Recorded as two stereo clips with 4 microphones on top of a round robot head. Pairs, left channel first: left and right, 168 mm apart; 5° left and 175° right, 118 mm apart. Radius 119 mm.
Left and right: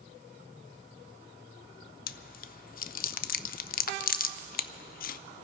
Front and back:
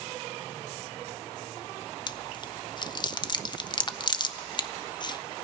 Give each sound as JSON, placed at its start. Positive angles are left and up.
{"t": 2.1, "sound": "chewing", "azimuth_deg": 55, "distance_m": 0.5}